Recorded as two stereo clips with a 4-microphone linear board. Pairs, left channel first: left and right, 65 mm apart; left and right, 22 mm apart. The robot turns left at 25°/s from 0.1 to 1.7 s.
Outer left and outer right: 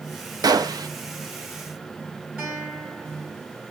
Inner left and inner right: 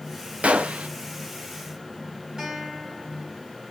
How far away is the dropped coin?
No dropped coin in this recording.